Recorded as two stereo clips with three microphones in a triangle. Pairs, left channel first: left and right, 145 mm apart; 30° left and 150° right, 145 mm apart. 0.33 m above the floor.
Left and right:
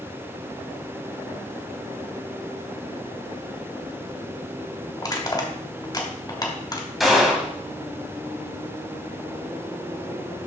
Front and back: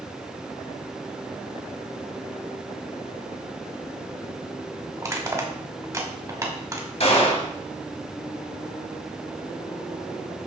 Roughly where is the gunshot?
Ahead.